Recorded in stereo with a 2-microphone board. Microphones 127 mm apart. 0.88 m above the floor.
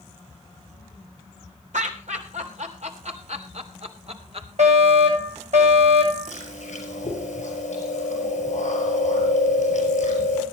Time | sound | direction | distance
1.7 | laughter | 75° right (ahead or behind) | 3 m
4.6 | a fire alarm | 65° right (ahead or behind) | 8.5 m
6.3 | chewing | 70° left (ahead or behind) | 5.5 m